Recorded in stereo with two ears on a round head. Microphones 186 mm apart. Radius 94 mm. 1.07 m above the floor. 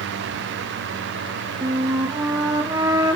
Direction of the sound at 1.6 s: 15° right (ahead or behind).